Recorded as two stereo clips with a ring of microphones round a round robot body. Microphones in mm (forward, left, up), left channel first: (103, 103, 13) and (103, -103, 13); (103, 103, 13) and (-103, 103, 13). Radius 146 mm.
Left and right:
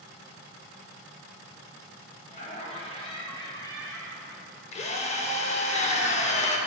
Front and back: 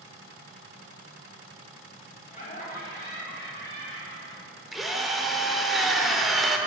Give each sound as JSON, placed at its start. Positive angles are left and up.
{"t": 2.3, "sound": "laughter", "azimuth_deg": 45, "distance_m": 2.0}
{"t": 4.7, "sound": "a drill", "azimuth_deg": 90, "distance_m": 0.7}